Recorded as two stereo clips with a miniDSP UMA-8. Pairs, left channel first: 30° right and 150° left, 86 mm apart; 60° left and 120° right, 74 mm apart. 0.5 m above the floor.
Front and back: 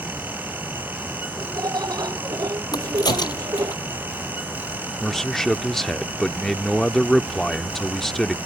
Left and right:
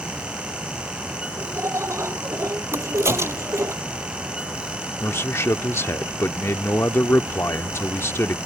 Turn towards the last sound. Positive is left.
turn(degrees=55)